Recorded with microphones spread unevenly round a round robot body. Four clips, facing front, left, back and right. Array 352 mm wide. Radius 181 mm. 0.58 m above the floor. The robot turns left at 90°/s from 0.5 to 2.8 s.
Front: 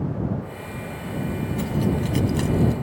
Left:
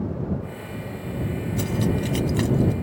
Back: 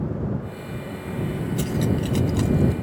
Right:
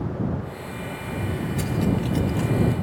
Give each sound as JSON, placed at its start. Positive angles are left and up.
{"t": 1.6, "sound": "cutlery clinking", "azimuth_deg": 155}